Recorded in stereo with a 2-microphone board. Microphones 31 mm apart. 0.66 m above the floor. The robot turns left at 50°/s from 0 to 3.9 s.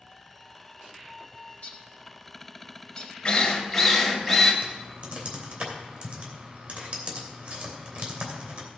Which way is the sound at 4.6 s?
50° right (ahead or behind).